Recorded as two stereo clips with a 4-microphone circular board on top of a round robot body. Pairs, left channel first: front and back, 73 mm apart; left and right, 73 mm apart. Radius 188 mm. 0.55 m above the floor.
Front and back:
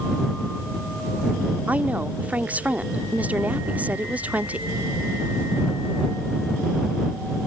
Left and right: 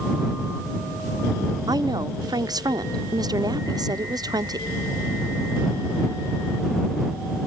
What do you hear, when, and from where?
1.7 s a woman speaking: 110° right